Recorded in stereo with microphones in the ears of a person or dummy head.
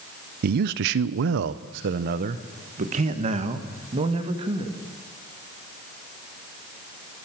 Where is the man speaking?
55° right (ahead or behind), 0.7 m; by 4.8 s 30° right (ahead or behind), 2.5 m.